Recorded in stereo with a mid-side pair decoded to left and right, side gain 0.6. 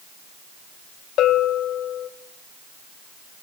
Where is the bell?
55° left, 0.9 m.